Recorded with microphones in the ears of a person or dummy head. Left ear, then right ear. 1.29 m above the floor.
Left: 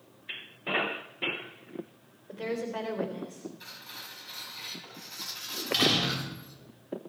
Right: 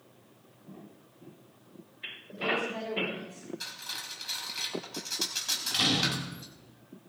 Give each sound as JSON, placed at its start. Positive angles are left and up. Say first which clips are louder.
{"t": 2.3, "sound": "a woman speaking", "louder": "right 3 dB", "side_deg": 20, "distance_m": 4.0}
{"t": 3.6, "sound": "cutlery clinking", "louder": "right 9 dB", "side_deg": -50, "distance_m": 5.0}
{"t": 5.5, "sound": "a door slam", "louder": "left 3 dB", "side_deg": 10, "distance_m": 3.0}